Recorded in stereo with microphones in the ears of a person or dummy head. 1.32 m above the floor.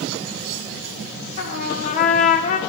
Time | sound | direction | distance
1.4 | a trumpet | 45° left (ahead or behind) | 1.3 m